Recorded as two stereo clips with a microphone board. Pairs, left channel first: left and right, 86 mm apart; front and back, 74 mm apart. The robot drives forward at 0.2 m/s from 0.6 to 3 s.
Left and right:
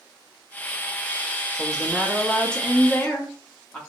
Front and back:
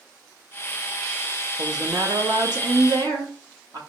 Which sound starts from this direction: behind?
A woman speaking, at 1.6 s.